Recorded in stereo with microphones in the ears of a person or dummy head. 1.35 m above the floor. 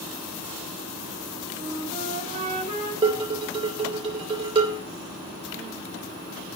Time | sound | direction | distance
1.6 | a flute | 40° right (ahead or behind) | 4.5 m
3.0 | dishes clattering | 35° right (ahead or behind) | 3 m